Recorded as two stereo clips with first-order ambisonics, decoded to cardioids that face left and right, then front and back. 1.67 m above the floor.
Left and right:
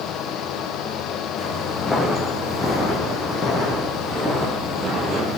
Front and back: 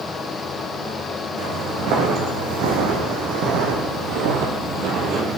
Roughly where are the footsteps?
Behind.